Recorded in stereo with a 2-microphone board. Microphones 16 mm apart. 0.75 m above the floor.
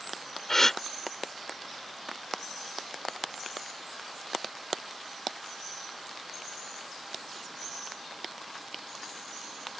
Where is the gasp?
25° left (ahead or behind).